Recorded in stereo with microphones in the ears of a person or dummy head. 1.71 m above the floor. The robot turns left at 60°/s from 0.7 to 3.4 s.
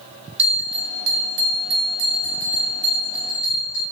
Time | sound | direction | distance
0.4 | a bell | 35° right | 0.6 m